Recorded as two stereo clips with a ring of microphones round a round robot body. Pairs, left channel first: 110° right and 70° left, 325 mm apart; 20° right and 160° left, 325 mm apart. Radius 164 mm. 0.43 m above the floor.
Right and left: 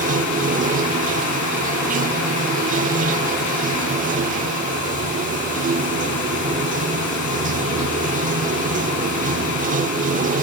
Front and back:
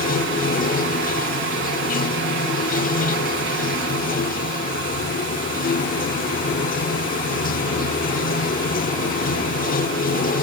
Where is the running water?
20° left, 1.0 m.